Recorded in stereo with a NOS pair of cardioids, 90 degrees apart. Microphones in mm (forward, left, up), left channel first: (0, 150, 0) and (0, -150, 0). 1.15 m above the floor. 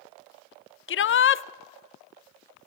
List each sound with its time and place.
0.9 s a shout: 40° left, 0.6 m